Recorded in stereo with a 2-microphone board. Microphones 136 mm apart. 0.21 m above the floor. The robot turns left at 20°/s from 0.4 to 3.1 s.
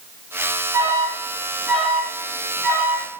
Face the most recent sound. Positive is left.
turn(degrees=25)  # may be behind; listen again after turning